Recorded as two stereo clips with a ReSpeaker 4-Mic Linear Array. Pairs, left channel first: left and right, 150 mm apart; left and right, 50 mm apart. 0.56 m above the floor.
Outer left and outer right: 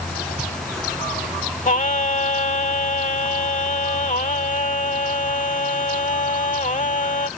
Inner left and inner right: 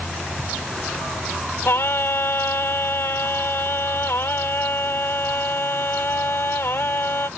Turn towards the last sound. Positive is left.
turn(degrees=55)  # may be behind; listen again after turning